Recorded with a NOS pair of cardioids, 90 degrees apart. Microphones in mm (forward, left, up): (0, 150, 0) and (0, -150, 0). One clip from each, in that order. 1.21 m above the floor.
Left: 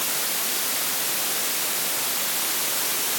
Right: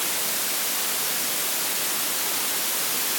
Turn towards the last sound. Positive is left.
No sound to turn to.